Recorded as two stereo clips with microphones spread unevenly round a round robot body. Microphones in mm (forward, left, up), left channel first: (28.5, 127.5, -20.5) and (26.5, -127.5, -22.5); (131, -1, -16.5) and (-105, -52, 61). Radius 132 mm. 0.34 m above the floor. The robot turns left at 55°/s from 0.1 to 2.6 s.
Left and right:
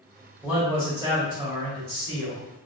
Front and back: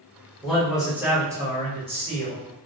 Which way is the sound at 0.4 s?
10° right.